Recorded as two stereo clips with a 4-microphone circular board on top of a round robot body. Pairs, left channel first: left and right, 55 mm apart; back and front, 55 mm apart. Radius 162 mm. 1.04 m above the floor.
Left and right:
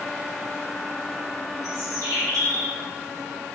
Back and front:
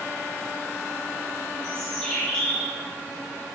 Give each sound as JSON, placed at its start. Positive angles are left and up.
{"t": 1.6, "sound": "a bird", "azimuth_deg": -105, "distance_m": 2.0}